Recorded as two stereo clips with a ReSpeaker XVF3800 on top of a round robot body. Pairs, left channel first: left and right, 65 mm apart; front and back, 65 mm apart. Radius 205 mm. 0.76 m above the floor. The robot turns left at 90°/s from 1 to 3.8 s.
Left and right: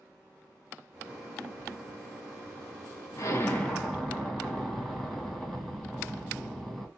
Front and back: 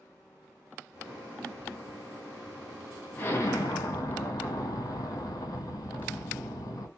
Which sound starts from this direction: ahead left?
An explosion, at 3.2 s.